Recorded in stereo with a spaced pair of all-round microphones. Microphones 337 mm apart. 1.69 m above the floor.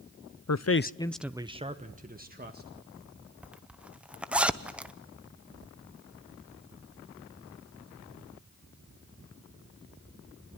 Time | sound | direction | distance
0.5 | a man speaking | 55° left (ahead or behind) | 0.6 m
3.4 | a zipper | 5° right (ahead or behind) | 0.8 m